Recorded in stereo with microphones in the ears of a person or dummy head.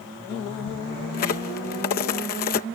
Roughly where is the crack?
Left.